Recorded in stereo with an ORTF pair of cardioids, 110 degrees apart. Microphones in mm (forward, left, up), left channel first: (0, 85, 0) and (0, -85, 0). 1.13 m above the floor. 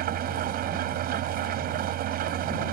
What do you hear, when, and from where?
0.0 s an engine running: 70° right